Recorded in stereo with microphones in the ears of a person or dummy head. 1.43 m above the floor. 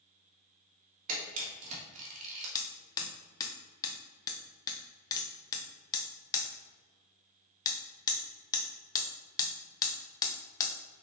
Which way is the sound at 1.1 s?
40° right (ahead or behind).